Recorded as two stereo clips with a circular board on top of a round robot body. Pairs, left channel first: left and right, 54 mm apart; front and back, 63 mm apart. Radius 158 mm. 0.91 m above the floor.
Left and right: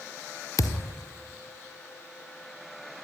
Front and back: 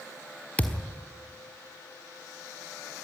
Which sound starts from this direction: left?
A thud, at 0.6 s.